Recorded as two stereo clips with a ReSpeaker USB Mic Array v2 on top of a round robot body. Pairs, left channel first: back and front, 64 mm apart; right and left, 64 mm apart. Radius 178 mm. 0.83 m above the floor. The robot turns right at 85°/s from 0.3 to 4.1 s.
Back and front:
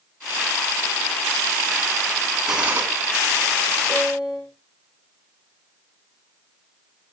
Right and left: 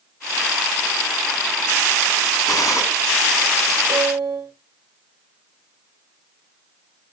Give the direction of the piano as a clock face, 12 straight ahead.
10 o'clock.